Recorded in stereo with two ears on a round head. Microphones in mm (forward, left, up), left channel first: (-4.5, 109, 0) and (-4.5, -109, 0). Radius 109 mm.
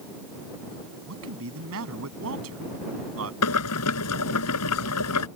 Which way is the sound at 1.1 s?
65° right (ahead or behind).